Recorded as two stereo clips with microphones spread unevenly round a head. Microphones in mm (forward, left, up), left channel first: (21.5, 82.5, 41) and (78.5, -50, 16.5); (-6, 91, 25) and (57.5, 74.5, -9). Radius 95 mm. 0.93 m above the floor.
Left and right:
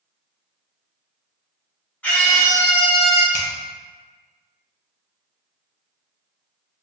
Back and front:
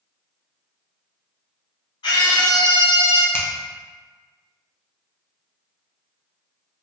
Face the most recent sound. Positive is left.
turn(degrees=85)